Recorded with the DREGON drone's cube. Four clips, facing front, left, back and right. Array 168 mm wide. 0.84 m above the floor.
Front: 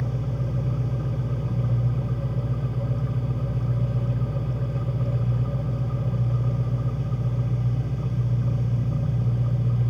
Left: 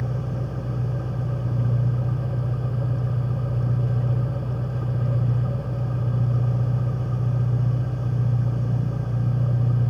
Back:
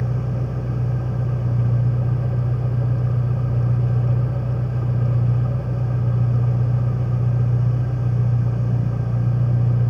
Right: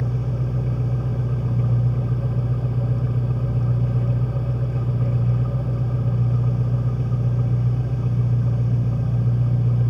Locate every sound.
0.0 s an engine running: 90° right, 8.5 m